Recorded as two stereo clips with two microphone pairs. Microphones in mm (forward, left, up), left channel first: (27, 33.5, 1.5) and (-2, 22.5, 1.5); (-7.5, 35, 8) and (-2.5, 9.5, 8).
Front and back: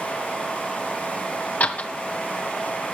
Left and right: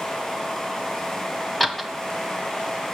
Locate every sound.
1.6 s a door slam: 20° left, 1.7 m